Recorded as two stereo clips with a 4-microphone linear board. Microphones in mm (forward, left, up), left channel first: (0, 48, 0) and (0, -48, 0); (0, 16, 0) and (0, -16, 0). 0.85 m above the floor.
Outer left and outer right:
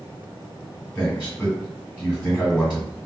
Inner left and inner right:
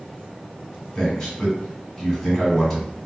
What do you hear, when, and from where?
0.9 s a man speaking: 20° left (ahead or behind), 1.4 m